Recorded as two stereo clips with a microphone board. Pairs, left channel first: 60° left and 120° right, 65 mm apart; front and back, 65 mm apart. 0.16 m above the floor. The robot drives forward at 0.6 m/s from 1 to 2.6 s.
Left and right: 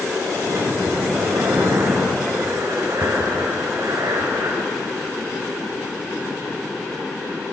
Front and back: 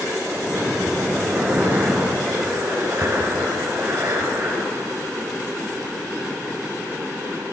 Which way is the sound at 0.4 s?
115° right.